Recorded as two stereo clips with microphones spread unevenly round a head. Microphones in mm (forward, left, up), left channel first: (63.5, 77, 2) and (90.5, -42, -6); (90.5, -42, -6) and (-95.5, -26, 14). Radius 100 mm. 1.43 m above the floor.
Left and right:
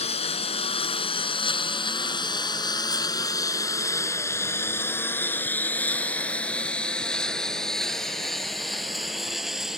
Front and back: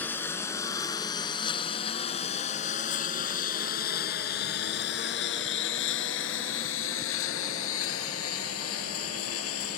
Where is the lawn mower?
75° left; by 9.8 s 10° left.